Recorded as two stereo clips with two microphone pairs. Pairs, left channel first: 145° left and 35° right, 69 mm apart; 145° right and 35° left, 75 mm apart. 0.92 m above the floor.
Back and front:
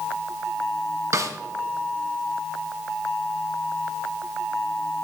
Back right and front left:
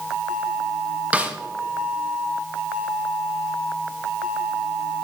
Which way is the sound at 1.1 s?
30° right.